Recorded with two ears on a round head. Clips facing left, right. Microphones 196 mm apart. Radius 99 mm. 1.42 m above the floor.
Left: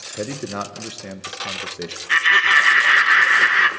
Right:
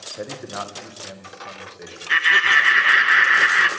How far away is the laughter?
About 1.2 m.